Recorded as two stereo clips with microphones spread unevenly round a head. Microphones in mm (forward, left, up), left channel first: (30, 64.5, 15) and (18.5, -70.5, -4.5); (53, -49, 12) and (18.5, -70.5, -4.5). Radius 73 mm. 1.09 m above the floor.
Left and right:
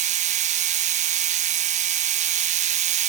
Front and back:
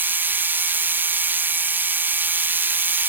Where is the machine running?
130° right, 1.0 m.